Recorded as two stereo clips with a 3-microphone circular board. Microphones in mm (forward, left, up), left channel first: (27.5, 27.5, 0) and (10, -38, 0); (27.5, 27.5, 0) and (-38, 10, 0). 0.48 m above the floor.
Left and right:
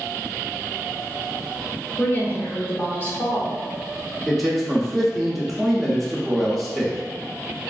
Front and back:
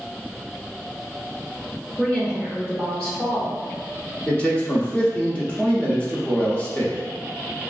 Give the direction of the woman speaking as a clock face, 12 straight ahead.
9 o'clock.